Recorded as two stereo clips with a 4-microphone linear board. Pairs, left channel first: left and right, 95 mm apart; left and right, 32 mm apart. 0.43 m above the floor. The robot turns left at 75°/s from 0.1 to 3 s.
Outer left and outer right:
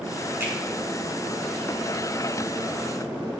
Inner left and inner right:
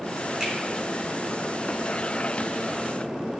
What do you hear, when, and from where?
0.4 s a finger snap: 20° right (ahead or behind), 0.9 m; by 0.5 s 25° right (ahead or behind), 0.9 m